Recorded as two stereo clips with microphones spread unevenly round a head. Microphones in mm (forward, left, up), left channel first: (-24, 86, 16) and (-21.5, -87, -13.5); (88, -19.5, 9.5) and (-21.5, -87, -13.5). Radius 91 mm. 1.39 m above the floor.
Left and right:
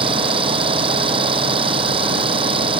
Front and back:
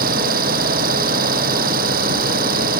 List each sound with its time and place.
0.0 s an engine running: 150° right